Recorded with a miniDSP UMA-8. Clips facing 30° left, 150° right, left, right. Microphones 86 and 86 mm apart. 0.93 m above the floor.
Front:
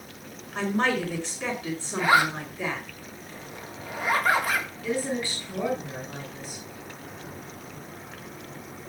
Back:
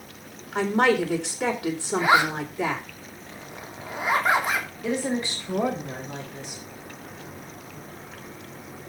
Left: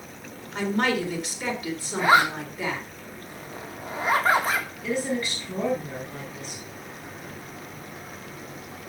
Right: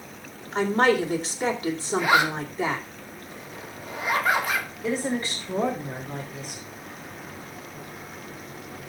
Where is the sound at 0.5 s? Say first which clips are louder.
Back 5 dB, right 4 dB; 150° right, 3.5 m.